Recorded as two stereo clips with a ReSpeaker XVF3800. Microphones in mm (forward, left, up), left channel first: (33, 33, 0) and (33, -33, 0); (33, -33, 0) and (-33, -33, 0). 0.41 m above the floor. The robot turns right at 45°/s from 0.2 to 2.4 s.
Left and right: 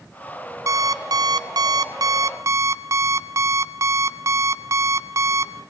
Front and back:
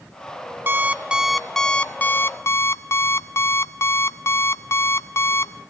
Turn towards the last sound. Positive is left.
turn(degrees=-50)